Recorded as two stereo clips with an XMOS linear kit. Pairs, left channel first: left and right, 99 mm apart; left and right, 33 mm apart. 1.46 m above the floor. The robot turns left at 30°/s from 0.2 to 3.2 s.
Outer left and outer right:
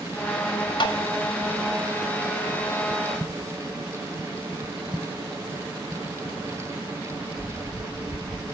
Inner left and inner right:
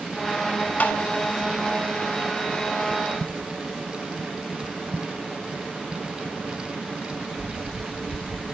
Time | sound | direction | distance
0.8 | tapping | 50° left (ahead or behind) | 1.0 m